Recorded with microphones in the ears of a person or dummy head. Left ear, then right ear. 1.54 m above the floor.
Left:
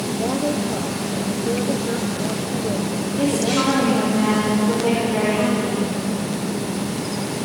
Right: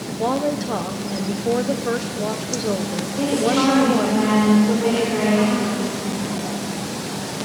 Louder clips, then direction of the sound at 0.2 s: Right 3 dB; 50° right (ahead or behind).